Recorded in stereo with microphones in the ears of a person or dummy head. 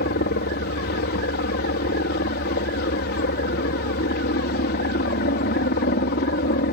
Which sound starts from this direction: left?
A helicopter, at 0.0 s.